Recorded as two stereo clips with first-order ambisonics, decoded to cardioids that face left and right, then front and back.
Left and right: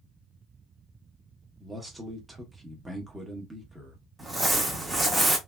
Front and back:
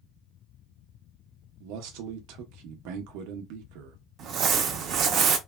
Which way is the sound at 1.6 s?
175° right.